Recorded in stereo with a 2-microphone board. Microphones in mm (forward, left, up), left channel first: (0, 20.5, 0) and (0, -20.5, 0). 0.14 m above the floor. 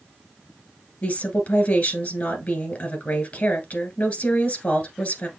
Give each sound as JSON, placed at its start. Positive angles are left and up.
{"t": 1.0, "sound": "a woman speaking", "side_deg": 45, "distance_m": 1.8}